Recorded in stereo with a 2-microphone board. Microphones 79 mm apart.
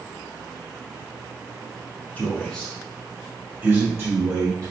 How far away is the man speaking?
About 1.2 m.